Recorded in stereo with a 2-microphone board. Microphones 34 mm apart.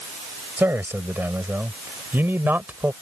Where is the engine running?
I don't hear an engine running.